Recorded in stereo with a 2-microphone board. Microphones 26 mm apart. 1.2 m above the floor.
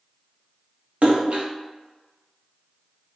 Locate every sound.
1.0 s a splash: 60° right (ahead or behind), 0.7 m